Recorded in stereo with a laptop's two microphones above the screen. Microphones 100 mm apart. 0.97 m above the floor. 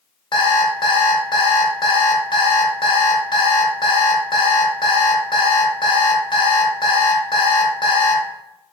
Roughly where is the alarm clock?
Left.